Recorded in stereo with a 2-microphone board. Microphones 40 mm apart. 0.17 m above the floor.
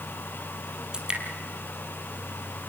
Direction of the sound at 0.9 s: 20° right (ahead or behind).